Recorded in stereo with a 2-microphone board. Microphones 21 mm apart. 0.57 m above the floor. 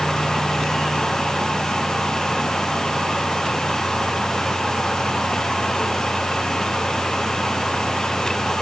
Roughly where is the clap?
I don't hear a clap.